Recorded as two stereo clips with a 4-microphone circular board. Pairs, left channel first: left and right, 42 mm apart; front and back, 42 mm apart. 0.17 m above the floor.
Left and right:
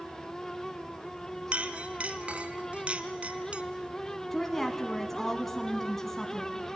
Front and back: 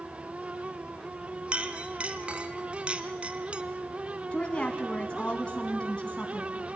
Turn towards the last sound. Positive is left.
turn(degrees=15)